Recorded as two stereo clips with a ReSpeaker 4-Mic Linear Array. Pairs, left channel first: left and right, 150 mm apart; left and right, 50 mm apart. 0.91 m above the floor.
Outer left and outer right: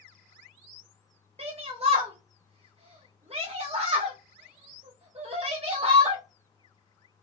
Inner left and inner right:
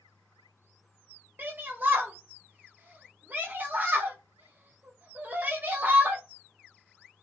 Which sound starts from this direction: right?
A shout, at 1.4 s.